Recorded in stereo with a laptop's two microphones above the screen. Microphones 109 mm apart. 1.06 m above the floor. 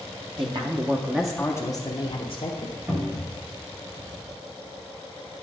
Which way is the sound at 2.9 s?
25° right (ahead or behind).